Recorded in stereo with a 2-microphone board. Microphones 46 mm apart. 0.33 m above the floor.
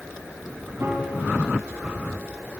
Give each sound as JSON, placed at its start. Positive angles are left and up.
{"t": 0.8, "sound": "a piano", "side_deg": -60, "distance_m": 3.5}